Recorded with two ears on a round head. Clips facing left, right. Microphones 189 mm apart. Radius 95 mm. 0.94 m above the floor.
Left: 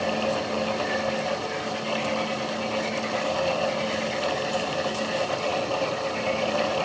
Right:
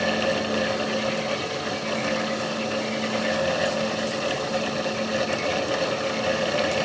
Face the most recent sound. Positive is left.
No sound to turn to.